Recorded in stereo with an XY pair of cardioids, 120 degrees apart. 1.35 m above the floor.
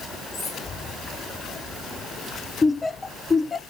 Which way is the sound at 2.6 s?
25° left.